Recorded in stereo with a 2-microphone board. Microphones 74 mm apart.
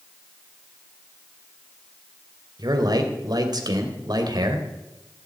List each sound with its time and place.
2.6 s a man speaking: 65° right (ahead or behind), 2.5 m